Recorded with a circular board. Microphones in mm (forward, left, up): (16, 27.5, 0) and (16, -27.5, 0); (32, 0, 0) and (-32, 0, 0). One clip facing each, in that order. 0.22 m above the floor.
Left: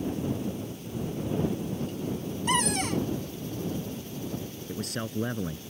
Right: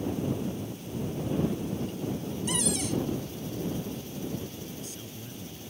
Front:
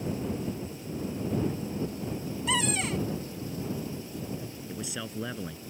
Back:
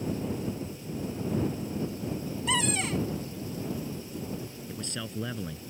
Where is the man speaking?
85° left.